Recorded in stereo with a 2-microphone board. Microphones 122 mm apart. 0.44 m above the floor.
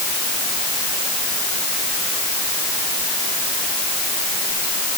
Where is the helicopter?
I don't hear a helicopter.